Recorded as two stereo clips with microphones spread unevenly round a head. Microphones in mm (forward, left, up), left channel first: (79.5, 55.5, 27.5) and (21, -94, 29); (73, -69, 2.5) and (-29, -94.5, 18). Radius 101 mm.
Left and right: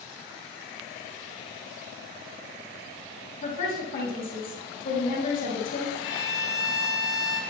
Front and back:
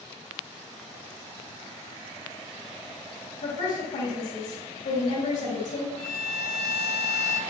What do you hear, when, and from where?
3.4 s a woman speaking: 30° left, 3 m
6.0 s a violin: straight ahead, 2.5 m